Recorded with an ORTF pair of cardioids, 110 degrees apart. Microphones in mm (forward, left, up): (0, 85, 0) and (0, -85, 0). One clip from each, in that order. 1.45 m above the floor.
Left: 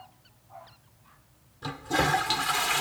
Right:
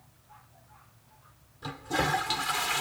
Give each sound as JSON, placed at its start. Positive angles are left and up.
{"t": 1.6, "sound": "a toilet flushing", "azimuth_deg": 20}